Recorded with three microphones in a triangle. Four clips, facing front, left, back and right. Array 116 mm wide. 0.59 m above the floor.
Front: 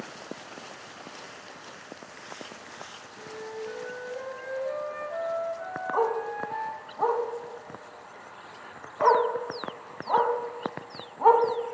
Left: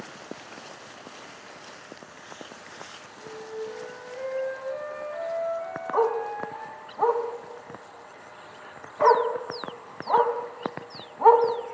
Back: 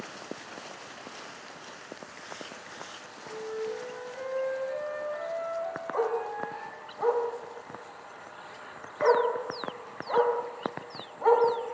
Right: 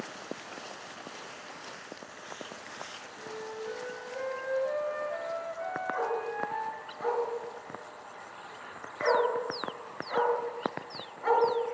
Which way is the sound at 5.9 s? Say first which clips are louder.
Left 11 dB, front 3 dB; 65° left.